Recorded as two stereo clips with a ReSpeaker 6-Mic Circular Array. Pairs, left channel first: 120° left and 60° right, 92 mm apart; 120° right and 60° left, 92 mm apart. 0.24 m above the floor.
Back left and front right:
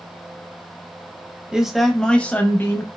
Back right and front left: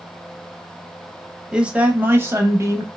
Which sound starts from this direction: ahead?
A man speaking, at 1.5 s.